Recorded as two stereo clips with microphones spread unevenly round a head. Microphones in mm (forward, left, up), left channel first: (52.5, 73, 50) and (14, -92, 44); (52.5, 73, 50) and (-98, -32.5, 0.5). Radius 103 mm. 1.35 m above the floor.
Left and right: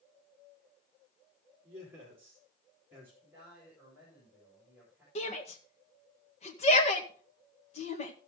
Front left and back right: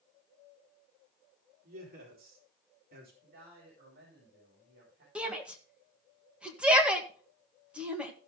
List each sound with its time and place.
1.6 s a man speaking: straight behind, 4.5 m
3.2 s a man speaking: 175° left, 5.5 m
5.2 s a shout: 135° left, 1.8 m